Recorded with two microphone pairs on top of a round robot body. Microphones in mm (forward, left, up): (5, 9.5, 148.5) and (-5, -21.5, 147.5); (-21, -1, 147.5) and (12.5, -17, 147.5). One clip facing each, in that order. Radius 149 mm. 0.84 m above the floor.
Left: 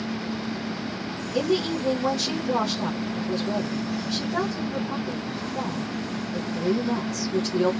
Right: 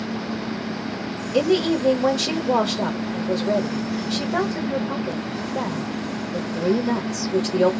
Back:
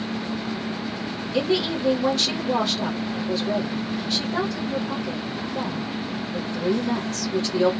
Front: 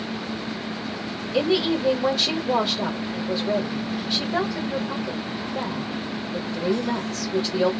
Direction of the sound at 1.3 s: 110° right.